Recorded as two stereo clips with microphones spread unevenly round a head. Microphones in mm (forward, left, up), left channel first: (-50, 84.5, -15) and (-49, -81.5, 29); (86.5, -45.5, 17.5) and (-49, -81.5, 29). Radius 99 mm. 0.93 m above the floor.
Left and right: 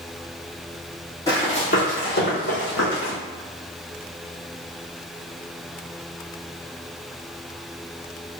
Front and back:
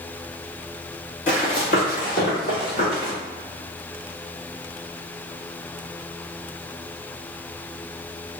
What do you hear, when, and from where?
1.3 s running footsteps: 10° left, 1.3 m; by 3.1 s 70° left, 2 m